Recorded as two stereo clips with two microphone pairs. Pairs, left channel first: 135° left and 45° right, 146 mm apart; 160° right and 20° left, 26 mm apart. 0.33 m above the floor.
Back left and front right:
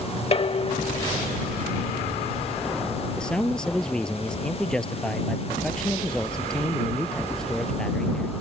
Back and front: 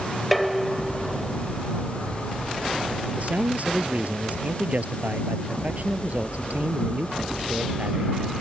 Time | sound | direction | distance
0.3 | dishes clattering | 115° left | ?
3.2 | a man speaking | 50° left | ?